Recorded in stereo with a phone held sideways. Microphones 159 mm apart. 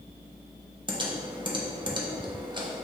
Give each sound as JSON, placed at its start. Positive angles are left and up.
{"t": 0.9, "sound": "typing on a keyboard", "side_deg": -30, "distance_m": 1.0}